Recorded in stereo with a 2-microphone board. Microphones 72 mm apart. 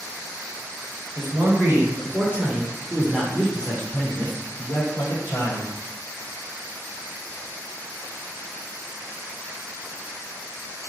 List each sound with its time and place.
1.1 s a man speaking: 35° right (ahead or behind), 1.6 m; by 5.7 s 55° left (ahead or behind), 1.4 m